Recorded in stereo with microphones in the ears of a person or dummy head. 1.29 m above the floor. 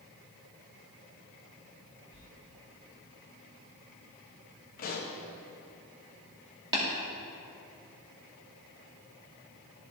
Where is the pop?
50° left (ahead or behind), 0.9 m.